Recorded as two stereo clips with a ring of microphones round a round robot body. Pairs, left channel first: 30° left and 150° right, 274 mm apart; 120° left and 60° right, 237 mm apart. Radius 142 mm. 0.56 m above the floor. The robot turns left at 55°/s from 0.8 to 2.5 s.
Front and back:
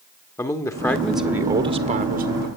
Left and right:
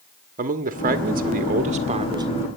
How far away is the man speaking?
About 1.2 m.